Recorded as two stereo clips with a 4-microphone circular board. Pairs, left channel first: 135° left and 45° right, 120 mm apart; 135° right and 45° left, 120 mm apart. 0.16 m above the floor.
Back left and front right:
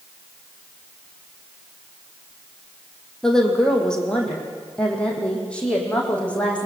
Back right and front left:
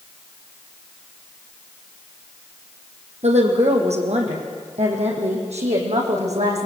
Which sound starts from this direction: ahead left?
A woman speaking, at 3.2 s.